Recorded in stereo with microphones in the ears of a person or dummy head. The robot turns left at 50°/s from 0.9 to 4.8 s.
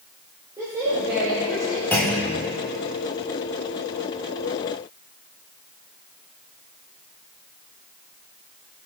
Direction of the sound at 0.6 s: 160° right.